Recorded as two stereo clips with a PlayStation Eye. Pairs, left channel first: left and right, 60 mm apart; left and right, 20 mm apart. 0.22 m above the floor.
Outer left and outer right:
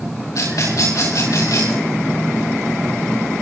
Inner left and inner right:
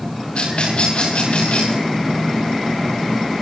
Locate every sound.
0.3 s a rattle: 75° left (ahead or behind), 8 m